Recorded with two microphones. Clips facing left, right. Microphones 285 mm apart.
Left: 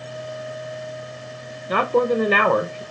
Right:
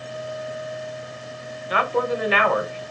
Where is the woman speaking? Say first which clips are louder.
Left 5 dB; 55° left (ahead or behind), 0.6 m.